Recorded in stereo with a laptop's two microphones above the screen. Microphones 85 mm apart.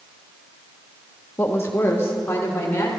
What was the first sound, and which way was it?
A woman speaking, 25° left (ahead or behind).